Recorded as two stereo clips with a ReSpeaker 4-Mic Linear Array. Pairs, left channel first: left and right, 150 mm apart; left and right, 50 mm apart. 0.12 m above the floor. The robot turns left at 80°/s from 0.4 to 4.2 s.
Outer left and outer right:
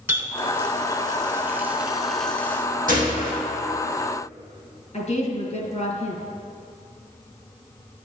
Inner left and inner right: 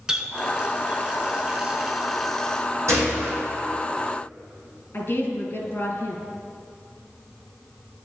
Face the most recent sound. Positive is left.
turn(degrees=50)  # may be behind; listen again after turning